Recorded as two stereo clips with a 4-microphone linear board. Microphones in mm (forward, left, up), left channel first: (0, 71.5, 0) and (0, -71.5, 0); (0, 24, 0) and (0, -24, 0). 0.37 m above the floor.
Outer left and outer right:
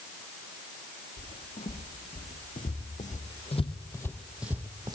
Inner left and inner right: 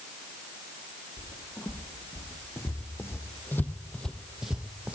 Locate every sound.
1.2 s footsteps: 85° left, 2.5 m; by 5.0 s 30° right (ahead or behind), 1.1 m